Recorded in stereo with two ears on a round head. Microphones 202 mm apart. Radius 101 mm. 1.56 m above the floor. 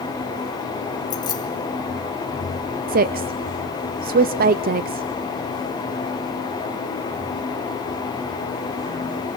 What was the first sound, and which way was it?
Keys jangling, 20° left (ahead or behind).